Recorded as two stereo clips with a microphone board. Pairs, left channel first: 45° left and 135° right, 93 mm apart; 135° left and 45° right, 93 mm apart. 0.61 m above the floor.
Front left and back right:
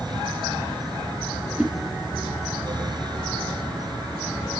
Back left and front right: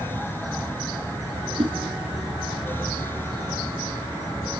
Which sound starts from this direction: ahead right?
A whoosh, at 1.6 s.